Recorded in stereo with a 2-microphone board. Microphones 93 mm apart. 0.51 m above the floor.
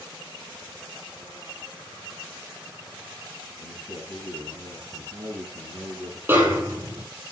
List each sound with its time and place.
3.6 s a man speaking: 75° right (ahead or behind), 5 m
6.3 s a snare drum: 25° right (ahead or behind), 4.5 m